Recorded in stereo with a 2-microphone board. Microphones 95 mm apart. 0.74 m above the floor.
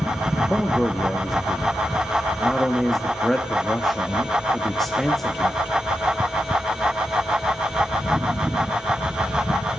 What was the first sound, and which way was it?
A man speaking, centre (ahead or behind).